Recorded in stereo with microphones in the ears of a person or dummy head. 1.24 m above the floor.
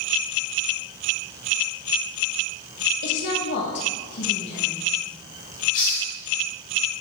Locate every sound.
3.0 s a woman speaking: 60° left (ahead or behind), 1.5 m
5.7 s a hiss: 20° left (ahead or behind), 1.0 m